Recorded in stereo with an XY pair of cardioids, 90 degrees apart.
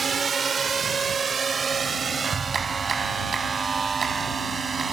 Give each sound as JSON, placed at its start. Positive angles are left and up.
{"t": 0.0, "sound": "a drone", "azimuth_deg": -40}
{"t": 2.2, "sound": "a clap", "azimuth_deg": -35}